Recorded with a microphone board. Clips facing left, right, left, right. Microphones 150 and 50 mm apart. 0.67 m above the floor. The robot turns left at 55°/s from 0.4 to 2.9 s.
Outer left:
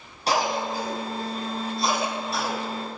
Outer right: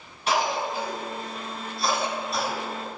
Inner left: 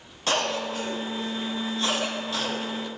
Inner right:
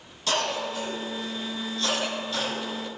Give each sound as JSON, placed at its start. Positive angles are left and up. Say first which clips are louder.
{"t": 0.3, "sound": "a cough", "louder": "outer left 1 dB, inner left 1 dB", "side_deg": 35, "distance_m": 1.1}